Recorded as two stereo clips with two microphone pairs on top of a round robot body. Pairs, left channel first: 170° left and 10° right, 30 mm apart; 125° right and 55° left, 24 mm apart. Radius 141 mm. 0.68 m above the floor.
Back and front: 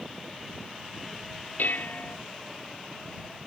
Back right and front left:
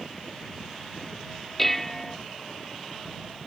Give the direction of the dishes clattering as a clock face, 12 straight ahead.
7 o'clock.